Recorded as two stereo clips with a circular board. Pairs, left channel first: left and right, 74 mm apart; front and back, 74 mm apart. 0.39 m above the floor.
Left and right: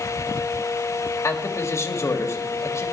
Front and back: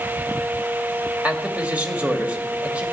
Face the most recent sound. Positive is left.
turn(degrees=115)